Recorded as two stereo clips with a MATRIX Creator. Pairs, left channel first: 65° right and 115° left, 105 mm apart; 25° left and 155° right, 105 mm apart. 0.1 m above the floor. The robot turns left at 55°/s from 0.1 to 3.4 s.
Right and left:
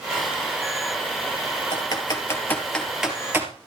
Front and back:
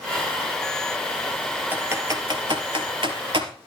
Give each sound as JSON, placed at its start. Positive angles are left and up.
{"t": 1.7, "sound": "typing on a keyboard", "azimuth_deg": -90, "distance_m": 2.5}